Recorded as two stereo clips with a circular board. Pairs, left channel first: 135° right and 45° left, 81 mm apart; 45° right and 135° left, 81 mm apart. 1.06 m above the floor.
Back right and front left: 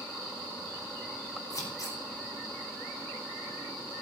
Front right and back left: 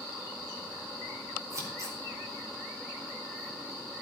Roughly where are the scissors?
Behind.